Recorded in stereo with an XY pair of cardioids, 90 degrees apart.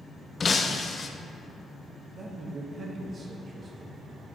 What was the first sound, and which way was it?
Breaking glass, 40° left.